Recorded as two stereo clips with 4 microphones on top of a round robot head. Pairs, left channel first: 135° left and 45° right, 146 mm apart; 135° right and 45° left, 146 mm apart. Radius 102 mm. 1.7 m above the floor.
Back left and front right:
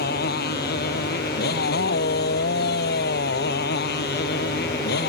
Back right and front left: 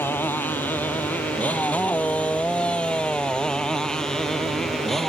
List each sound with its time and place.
0.0 s a motorcycle: 145° left; by 5.1 s 135° left